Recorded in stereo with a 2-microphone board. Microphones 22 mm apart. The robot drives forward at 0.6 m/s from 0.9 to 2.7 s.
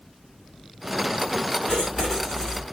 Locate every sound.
1.7 s writing: 45° left (ahead or behind), 1.7 m; by 2.6 s 35° left (ahead or behind), 2 m